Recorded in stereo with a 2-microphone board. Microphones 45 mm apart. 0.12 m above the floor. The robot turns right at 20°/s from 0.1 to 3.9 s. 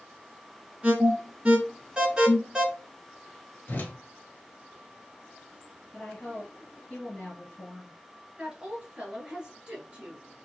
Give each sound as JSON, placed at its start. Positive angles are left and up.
{"t": 0.8, "sound": "an alarm", "side_deg": -30, "distance_m": 1.3}
{"t": 3.7, "sound": "a whoosh", "side_deg": 45, "distance_m": 1.2}
{"t": 5.9, "sound": "a woman speaking", "side_deg": 25, "distance_m": 2.0}
{"t": 8.4, "sound": "a woman speaking", "side_deg": -20, "distance_m": 1.9}